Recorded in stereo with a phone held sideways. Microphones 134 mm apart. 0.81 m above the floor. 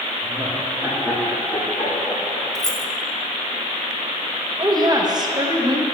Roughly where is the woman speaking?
Right.